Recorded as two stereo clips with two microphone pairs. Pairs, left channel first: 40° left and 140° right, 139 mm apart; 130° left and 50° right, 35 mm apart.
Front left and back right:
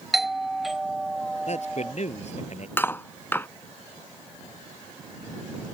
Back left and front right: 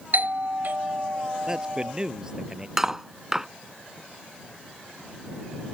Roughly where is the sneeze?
No sneeze in this recording.